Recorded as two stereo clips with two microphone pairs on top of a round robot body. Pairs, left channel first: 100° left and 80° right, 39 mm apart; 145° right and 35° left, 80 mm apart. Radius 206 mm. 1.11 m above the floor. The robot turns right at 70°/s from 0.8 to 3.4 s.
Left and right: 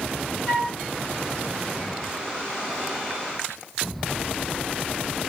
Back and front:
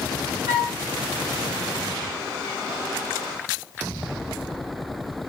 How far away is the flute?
About 1.0 m.